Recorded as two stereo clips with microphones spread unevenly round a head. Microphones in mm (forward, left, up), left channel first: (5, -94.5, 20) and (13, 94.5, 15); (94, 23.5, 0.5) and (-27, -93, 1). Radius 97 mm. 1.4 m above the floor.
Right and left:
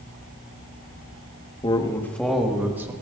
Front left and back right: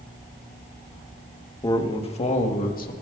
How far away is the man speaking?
About 1.5 m.